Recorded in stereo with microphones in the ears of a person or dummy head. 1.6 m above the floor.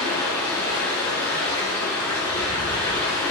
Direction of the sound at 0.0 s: 20° left (ahead or behind).